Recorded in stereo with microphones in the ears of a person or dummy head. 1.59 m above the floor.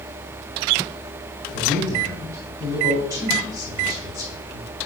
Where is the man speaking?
25° right (ahead or behind), 3 m.